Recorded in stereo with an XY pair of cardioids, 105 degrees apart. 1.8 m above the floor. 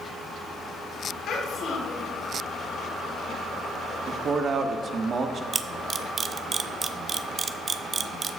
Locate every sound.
1.3 s a child speaking: 65° left, 2.5 m
4.1 s a man speaking: 45° right, 1.0 m
5.5 s a camera shutter: 40° right, 0.5 m